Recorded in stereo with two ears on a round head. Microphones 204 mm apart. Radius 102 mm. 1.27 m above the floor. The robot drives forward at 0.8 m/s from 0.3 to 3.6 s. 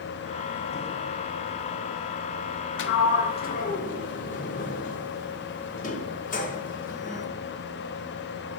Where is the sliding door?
55° left (ahead or behind), 0.7 m; by 7.3 s 35° left (ahead or behind), 0.9 m.